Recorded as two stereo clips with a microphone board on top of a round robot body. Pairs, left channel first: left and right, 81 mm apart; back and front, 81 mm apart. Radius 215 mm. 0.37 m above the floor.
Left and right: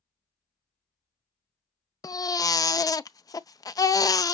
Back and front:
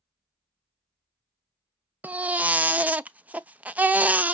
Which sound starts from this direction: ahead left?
A baby crying, at 2.0 s.